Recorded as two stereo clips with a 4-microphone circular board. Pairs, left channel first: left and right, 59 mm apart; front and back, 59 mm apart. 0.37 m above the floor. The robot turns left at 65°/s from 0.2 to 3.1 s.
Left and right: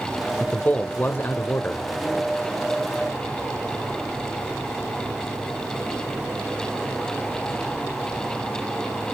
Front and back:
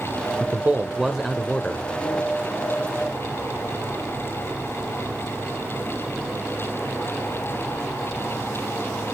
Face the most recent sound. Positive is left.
turn(degrees=-30)